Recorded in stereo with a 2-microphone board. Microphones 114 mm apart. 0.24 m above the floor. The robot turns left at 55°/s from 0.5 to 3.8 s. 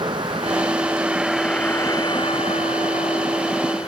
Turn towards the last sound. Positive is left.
turn(degrees=50)  # may be behind; listen again after turning